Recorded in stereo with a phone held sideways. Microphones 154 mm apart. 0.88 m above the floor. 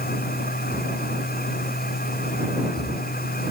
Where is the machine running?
75° left (ahead or behind).